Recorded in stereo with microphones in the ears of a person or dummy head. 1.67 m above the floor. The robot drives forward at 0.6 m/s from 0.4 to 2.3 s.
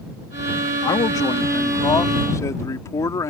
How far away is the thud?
No thud in this recording.